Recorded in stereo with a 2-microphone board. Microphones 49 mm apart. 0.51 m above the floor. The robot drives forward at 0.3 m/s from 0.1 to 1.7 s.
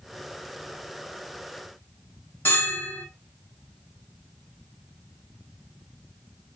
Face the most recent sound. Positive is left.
turn(degrees=55)  # may be behind; listen again after turning